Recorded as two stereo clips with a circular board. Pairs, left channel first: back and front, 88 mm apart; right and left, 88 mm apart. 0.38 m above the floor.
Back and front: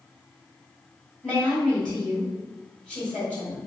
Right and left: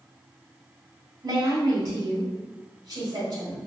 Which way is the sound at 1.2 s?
105° left.